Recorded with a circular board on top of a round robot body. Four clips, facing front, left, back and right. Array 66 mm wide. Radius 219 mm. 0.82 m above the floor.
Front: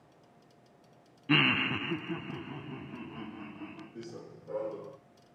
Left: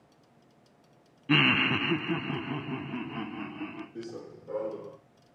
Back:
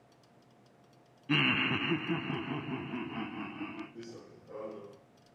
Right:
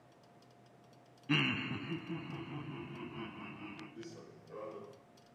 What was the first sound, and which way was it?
Laughter, 50° left.